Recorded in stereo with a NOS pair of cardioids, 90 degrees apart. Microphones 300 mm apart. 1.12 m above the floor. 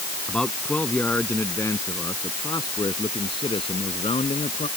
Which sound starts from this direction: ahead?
A man speaking, at 0.3 s.